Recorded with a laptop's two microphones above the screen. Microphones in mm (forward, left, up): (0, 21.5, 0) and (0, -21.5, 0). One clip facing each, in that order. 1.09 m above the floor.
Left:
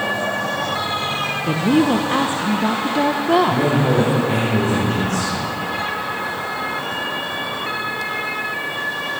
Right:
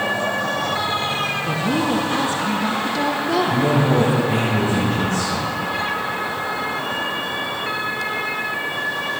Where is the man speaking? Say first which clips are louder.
Even; 80° left, 5 m.